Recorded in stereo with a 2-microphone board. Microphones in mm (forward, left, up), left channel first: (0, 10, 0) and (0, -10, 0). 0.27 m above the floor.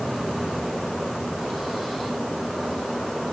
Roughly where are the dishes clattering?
No dishes clattering in this recording.